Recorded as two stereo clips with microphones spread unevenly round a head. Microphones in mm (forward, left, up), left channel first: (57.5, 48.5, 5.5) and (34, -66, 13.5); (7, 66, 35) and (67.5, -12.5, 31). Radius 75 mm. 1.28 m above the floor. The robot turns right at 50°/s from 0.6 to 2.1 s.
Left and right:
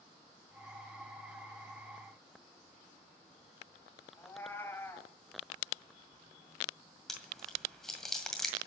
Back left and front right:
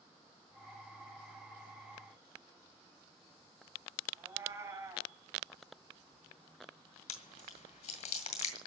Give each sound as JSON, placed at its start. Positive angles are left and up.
{"t": 4.2, "sound": "a cat meowing", "azimuth_deg": 5, "distance_m": 2.0}
{"t": 7.1, "sound": "chewing", "azimuth_deg": 165, "distance_m": 1.9}